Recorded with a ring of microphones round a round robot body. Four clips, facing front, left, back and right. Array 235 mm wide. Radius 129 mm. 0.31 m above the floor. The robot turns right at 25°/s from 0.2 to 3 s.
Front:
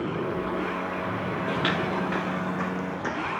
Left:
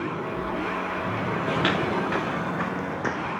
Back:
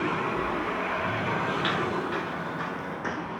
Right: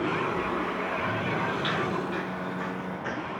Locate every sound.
1.5 s footsteps: 65° left, 0.6 m; by 3.4 s 80° left, 1.9 m